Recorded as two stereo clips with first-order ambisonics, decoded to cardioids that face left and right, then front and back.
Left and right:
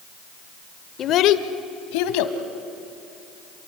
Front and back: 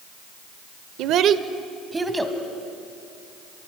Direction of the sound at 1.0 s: 150° left.